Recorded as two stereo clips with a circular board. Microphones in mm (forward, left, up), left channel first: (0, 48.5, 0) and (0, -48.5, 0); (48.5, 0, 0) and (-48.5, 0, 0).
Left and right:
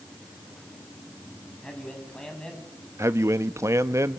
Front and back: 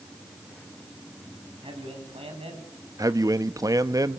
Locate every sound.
1.6 s a man speaking: 170° left, 6.5 m
3.0 s a man speaking: 140° right, 0.9 m